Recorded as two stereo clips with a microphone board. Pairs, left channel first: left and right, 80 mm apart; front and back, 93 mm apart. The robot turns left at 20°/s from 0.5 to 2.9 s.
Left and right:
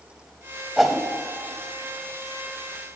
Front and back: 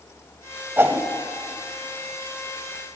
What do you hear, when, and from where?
0.8 s a whoosh: 175° right, 0.6 m; by 1.1 s straight behind, 0.6 m